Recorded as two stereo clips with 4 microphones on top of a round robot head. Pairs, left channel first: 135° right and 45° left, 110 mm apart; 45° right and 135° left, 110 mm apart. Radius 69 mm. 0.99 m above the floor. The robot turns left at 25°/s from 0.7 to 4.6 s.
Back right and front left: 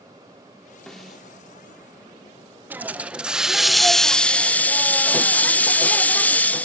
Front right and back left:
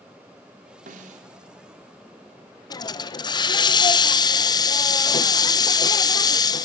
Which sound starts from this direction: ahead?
A hiss, at 2.7 s.